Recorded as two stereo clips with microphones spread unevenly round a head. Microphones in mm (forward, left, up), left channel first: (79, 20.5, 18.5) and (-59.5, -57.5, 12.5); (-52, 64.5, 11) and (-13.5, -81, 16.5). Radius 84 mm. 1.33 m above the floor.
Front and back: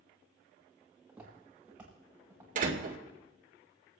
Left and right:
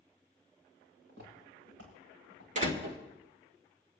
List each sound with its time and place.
1.1 s footsteps: 65° right, 8.5 m; by 2.5 s 70° right, 7.5 m
2.5 s a door slam: 115° right, 2.5 m